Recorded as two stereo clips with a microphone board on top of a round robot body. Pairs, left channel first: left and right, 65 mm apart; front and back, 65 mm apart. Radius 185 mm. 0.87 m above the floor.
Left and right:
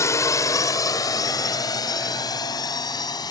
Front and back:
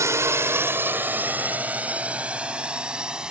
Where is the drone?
135° left; by 3.3 s 100° left.